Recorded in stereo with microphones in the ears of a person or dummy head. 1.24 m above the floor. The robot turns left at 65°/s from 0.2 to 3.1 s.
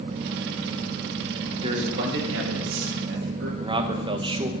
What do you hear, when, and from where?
1.6 s a man speaking: 20° right, 2 m; by 3.5 s 120° right, 2 m
3.6 s a man speaking: 25° right (ahead or behind), 0.9 m